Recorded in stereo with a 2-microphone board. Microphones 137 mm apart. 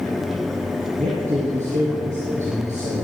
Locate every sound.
1.0 s a man speaking: 60° right (ahead or behind), 3.5 m